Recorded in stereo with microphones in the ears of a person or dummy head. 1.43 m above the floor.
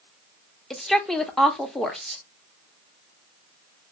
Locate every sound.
0.7 s a woman speaking: centre (ahead or behind), 0.6 m